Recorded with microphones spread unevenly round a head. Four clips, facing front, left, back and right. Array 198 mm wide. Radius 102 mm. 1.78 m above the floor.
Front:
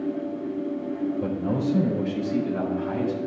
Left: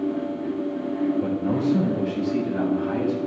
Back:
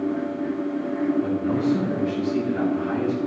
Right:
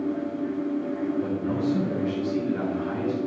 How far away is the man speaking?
About 3.5 m.